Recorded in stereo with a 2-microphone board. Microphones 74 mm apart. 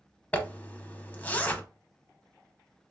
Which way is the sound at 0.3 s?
20° left (ahead or behind).